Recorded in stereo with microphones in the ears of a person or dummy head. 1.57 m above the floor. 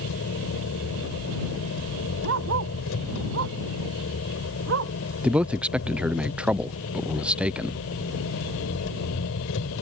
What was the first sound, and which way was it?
An engine running, 85° left.